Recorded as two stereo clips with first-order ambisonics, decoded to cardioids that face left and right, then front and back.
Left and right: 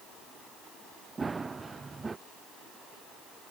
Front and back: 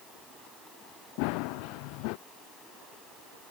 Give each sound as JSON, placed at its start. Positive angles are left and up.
{"t": 1.2, "sound": "running footsteps", "azimuth_deg": -10}